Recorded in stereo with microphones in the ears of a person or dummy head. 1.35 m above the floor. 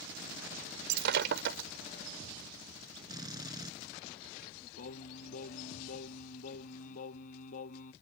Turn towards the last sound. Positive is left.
turn(degrees=50)  # may be behind; listen again after turning